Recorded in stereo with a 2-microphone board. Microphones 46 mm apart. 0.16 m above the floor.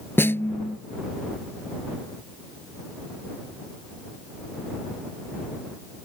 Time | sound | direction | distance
0.2 | a snare drum | 55° left (ahead or behind) | ?